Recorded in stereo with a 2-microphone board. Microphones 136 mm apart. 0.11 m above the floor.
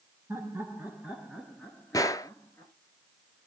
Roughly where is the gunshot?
Left.